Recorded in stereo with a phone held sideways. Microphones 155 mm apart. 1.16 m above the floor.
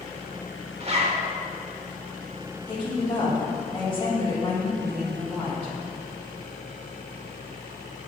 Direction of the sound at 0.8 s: 40° right (ahead or behind).